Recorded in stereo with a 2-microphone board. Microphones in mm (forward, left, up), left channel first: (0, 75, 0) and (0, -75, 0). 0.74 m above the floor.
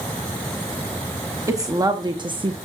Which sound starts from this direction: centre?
A woman speaking, at 1.5 s.